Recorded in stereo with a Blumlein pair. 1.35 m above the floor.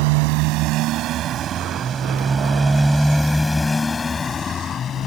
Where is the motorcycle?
45° right; by 5.1 s 25° left.